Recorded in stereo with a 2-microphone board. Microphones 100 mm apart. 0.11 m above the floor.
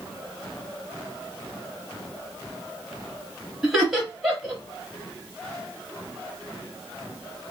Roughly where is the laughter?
Centre.